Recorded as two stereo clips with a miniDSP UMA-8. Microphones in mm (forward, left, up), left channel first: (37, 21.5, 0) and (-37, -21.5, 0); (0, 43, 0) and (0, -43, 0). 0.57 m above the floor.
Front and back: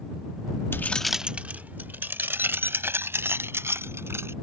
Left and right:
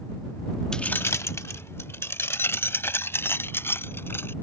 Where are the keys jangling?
15° left; by 4.3 s 150° left.